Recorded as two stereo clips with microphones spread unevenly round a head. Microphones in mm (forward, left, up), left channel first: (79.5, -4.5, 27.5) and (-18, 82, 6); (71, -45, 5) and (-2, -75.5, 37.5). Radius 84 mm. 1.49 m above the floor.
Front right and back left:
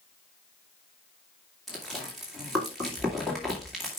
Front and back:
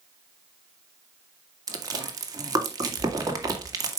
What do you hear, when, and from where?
1.7 s chewing: 130° right, 2.0 m